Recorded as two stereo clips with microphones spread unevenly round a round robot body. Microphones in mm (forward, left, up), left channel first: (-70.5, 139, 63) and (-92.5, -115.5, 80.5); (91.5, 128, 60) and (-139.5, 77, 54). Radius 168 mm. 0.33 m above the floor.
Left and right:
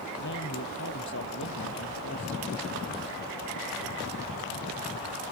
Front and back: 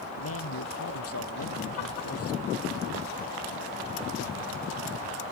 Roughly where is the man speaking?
Ahead left.